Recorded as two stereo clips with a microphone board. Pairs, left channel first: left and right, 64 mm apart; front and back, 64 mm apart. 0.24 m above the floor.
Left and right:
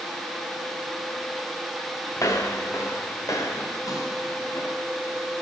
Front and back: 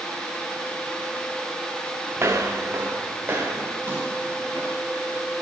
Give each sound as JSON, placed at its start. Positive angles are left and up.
{"t": 2.2, "sound": "footsteps", "azimuth_deg": 130, "distance_m": 1.5}